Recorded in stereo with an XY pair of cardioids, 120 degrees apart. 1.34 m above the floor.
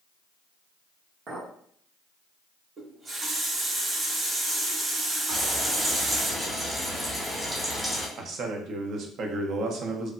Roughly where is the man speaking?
Ahead right.